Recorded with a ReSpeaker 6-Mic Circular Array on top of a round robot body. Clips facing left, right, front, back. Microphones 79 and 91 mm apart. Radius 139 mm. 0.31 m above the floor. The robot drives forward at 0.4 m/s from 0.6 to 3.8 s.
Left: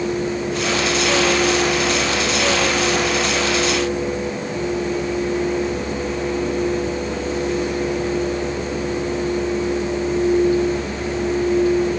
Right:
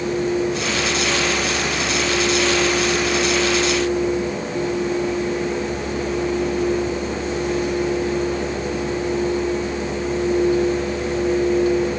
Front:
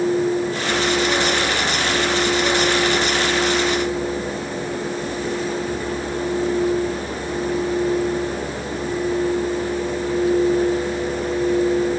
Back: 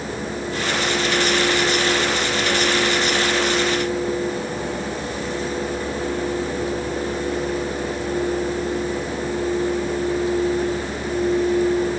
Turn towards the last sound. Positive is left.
No sound to turn to.